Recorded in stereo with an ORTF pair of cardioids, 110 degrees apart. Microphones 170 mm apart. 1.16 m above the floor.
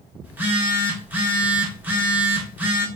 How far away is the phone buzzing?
About 1.6 m.